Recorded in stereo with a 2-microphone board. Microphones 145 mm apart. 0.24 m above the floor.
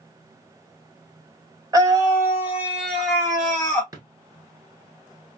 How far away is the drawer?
About 1.1 m.